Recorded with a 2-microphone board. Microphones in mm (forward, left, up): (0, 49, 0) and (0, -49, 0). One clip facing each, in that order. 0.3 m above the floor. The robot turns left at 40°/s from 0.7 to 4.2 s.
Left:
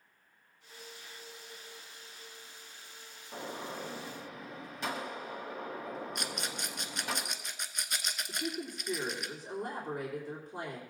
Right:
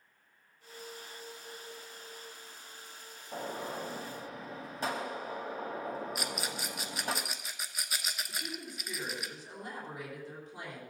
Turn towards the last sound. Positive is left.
turn(degrees=40)  # may be behind; listen again after turning